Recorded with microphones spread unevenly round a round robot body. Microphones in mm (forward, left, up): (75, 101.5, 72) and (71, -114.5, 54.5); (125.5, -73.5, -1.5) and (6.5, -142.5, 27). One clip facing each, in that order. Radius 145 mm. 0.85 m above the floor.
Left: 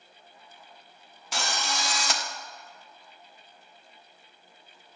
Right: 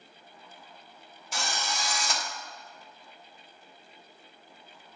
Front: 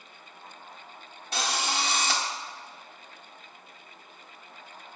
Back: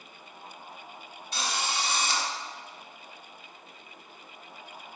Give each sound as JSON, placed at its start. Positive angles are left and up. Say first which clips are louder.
{"t": 1.3, "sound": "a drill", "louder": "left 2 dB, front 2 dB", "azimuth_deg": 65, "distance_m": 1.4}